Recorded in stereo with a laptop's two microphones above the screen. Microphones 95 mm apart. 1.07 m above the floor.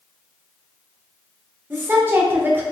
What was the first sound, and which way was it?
A woman speaking, 20° right (ahead or behind).